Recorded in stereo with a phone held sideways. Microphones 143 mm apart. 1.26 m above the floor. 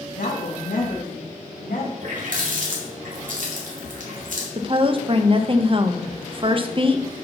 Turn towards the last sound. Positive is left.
turn(degrees=-40)  # may be behind; listen again after turning